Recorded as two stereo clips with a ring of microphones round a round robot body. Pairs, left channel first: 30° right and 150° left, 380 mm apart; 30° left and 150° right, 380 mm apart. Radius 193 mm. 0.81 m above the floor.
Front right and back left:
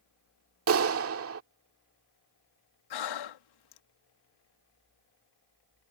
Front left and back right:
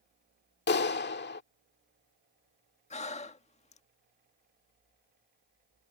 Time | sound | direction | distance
0.7 | a clap | 95° left | ?
2.9 | breathing | 40° right | ?